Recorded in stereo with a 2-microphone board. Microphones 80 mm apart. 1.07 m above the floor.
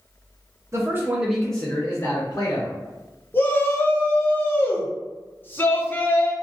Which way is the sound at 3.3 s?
30° left (ahead or behind).